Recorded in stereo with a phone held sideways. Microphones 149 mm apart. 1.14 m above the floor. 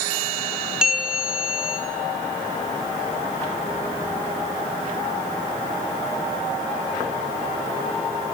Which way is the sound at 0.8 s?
5° right (ahead or behind).